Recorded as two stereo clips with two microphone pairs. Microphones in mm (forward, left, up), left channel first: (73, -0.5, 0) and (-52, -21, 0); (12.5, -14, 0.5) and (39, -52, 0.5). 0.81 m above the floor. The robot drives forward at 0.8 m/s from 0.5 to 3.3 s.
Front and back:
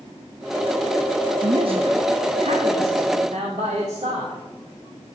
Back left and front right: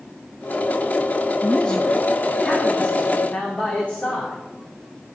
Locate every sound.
1.4 s a man speaking: 170° right, 0.8 m; by 4.4 s straight behind, 2 m